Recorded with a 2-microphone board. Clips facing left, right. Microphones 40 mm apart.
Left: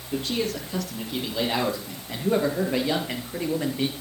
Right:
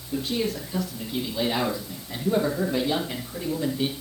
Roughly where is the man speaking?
Left.